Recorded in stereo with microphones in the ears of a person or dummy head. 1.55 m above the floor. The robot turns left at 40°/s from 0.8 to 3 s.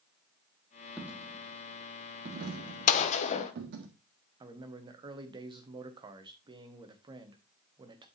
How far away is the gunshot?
About 0.9 m.